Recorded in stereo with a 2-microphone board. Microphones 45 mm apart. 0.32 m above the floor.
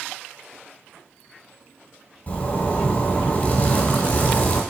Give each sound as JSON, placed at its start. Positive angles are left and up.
{"t": 2.3, "sound": "a zipper", "side_deg": 30, "distance_m": 1.8}